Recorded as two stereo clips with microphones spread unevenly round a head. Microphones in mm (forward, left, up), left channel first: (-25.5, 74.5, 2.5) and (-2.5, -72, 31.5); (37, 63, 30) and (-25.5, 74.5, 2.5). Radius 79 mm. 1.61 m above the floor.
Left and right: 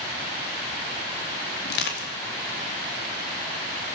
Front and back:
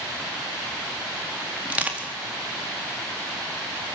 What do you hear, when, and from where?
1.6 s crushing: 100° left, 4 m